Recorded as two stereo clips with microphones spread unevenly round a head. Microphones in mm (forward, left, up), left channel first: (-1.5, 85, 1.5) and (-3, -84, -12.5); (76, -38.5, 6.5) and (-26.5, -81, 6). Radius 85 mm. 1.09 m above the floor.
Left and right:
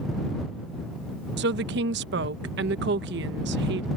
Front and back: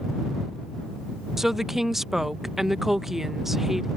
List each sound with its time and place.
1.4 s a woman speaking: 70° right